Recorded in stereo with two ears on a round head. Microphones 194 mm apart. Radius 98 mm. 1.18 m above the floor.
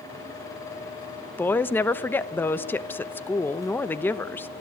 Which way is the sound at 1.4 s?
10° left (ahead or behind).